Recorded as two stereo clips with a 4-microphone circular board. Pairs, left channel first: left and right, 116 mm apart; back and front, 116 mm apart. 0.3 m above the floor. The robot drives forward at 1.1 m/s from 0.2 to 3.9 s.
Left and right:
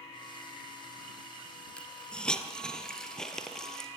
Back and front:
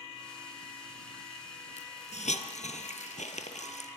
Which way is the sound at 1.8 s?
170° left.